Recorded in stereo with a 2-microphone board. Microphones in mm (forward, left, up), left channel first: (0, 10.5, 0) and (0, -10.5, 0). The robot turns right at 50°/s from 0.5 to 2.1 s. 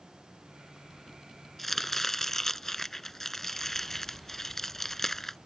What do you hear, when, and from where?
1.6 s chopping: 10° left (ahead or behind); by 5.4 s 20° left (ahead or behind)